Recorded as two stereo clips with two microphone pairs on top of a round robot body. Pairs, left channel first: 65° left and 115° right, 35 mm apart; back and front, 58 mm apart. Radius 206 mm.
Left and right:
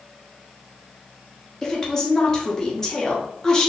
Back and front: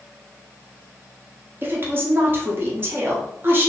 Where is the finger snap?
I don't hear a finger snap.